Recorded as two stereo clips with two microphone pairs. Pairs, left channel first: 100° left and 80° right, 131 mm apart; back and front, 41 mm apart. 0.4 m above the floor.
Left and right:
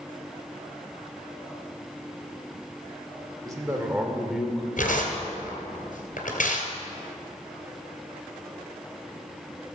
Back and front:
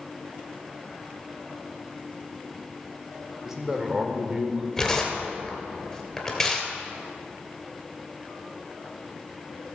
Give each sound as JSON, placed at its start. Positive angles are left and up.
{"t": 3.5, "sound": "a man speaking", "azimuth_deg": -65, "distance_m": 1.4}
{"t": 4.8, "sound": "tearing paper", "azimuth_deg": 95, "distance_m": 2.5}